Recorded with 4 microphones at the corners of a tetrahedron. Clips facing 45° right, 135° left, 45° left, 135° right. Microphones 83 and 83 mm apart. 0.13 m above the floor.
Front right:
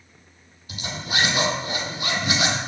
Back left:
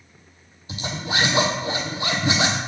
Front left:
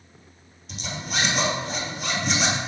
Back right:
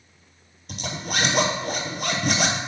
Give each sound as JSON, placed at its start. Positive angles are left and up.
{"t": 0.7, "sound": "a zipper", "azimuth_deg": -165, "distance_m": 1.2}